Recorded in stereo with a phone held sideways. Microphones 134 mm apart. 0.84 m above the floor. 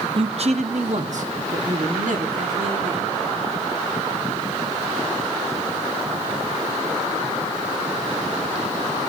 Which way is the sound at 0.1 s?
40° right (ahead or behind).